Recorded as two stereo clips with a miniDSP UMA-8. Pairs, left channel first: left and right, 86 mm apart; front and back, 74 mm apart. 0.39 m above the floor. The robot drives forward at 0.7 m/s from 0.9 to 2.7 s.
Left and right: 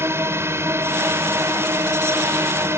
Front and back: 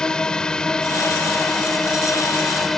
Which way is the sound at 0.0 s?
70° right.